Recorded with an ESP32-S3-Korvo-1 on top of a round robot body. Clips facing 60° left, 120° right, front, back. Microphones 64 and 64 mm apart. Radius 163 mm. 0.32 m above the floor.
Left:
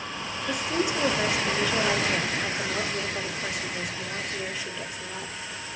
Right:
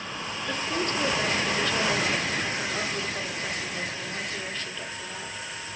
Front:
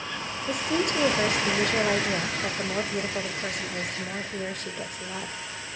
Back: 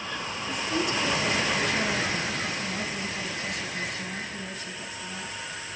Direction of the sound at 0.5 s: 20° right.